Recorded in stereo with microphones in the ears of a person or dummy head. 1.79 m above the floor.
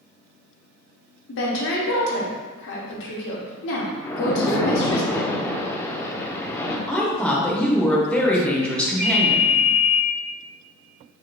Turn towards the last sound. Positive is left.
turn(degrees=-50)  # may be behind; listen again after turning